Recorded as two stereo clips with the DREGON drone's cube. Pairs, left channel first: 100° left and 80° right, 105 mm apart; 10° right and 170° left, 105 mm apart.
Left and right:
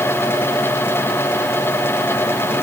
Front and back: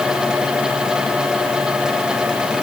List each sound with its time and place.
Only background noise.